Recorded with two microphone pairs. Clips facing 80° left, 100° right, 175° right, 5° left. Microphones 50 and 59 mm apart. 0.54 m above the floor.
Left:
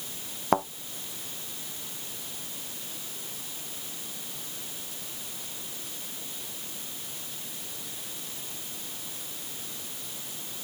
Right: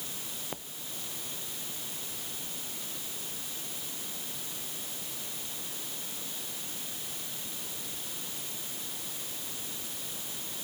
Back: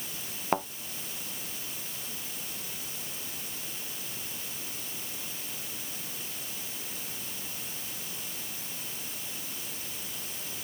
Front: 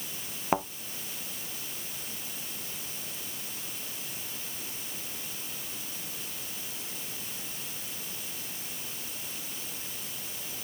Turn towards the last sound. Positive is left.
turn(degrees=90)